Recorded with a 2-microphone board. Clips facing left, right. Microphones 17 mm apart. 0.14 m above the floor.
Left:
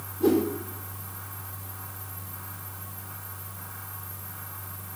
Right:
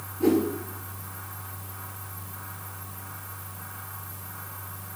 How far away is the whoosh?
About 2 m.